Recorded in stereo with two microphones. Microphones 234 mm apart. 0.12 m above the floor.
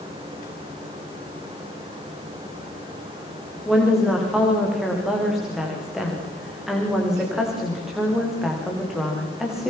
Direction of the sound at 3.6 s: Centre (ahead or behind).